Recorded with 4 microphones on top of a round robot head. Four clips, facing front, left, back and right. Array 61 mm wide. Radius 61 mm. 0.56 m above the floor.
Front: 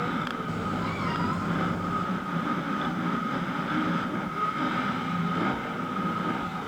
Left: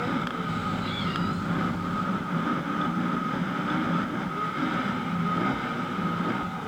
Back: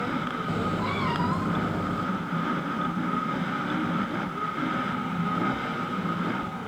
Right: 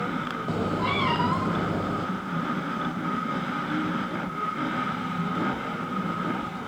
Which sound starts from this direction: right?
A cat meowing, at 0.5 s.